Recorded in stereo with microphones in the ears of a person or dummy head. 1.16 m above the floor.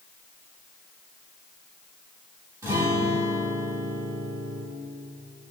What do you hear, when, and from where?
2.6 s a guitar: 25° right (ahead or behind), 1.9 m